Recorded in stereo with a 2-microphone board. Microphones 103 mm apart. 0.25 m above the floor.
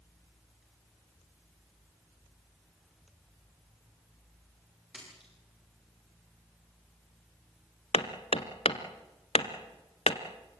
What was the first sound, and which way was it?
A splash, 10° right (ahead or behind).